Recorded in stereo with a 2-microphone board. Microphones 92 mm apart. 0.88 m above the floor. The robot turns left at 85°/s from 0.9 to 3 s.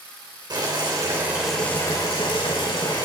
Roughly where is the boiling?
Behind right.